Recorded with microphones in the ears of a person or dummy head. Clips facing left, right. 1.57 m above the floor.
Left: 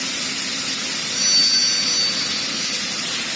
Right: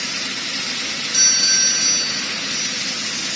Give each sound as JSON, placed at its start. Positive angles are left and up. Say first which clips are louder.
{"t": 1.1, "sound": "a doorbell", "louder": "even", "side_deg": -75, "distance_m": 1.7}